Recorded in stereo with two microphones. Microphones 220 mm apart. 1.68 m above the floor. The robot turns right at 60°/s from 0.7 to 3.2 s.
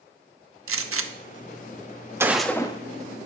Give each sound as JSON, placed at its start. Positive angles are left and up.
{"t": 0.7, "sound": "a gunshot", "side_deg": -75, "distance_m": 0.6}